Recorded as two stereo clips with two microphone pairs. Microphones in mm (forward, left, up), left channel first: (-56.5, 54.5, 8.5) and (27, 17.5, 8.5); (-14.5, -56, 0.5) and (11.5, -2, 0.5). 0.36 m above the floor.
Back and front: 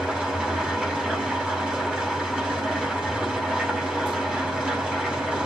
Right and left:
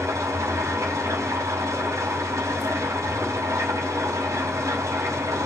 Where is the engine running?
55° left, 2.5 m.